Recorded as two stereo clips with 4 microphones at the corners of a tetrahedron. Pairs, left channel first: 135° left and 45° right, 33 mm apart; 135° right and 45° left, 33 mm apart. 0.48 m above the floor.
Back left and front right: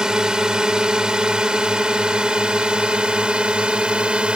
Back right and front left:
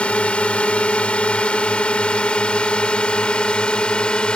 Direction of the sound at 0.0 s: 105° right.